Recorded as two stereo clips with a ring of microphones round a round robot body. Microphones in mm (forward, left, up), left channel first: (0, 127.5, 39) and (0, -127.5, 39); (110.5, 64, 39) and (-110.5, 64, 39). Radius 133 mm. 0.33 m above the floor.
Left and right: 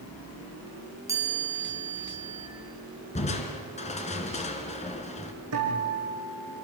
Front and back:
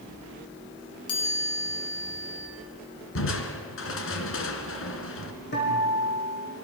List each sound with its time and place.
1.1 s a chime: 10° right, 3.5 m
3.1 s crushing: 25° left, 2 m
5.5 s a guitar: 55° right, 7 m